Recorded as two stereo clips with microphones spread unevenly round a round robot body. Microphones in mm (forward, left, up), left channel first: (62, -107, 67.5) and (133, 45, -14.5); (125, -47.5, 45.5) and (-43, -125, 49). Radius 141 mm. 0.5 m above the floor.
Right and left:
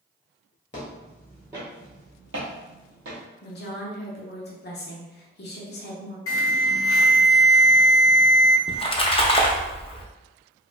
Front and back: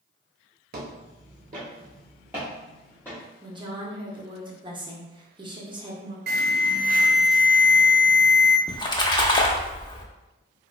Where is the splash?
40° right, 0.6 m.